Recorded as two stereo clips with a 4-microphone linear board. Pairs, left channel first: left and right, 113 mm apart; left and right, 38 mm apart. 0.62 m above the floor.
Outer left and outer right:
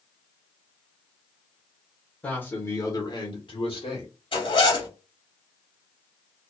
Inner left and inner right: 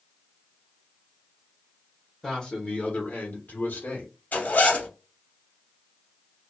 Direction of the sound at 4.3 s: 50° left (ahead or behind).